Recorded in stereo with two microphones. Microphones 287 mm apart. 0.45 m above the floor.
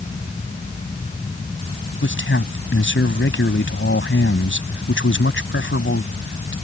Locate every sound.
2.0 s a man speaking: 45° left (ahead or behind)